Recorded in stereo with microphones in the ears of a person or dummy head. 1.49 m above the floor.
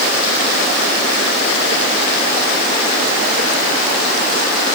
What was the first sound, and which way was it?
Only background noise.